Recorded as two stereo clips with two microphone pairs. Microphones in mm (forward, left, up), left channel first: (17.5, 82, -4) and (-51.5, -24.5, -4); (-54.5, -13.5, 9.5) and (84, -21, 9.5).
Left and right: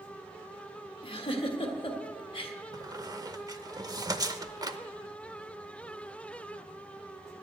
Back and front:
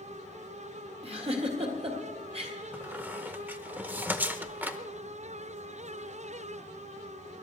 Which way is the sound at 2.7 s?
75° right.